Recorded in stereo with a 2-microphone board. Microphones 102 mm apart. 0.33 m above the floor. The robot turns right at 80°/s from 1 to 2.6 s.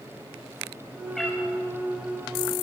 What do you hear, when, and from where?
1.1 s a cat meowing: centre (ahead or behind), 4.5 m; by 1.4 s 20° left (ahead or behind), 4.5 m